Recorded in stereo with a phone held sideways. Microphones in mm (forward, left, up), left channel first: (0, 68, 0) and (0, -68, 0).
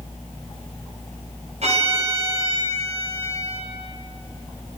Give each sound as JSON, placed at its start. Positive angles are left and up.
{"t": 1.6, "sound": "a violin", "side_deg": -60, "distance_m": 8.0}